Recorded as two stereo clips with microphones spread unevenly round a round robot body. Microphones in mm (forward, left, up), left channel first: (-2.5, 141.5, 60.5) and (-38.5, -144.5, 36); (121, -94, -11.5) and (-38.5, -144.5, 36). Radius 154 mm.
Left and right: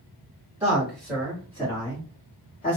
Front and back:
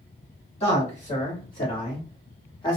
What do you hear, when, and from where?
0.6 s a man speaking: 20° right, 1.8 m; by 2.8 s 35° left, 1.2 m